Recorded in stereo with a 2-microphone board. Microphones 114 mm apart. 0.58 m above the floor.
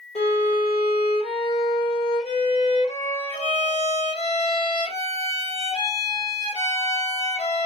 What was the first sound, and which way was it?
A violin, 65° left (ahead or behind).